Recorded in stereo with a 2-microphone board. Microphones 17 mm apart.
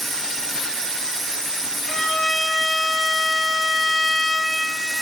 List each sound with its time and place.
1.9 s a violin: 65° left (ahead or behind), 3 m